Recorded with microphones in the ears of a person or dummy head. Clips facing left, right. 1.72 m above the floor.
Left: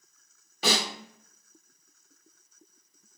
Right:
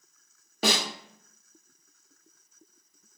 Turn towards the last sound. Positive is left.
turn(degrees=-40)  # may be behind; listen again after turning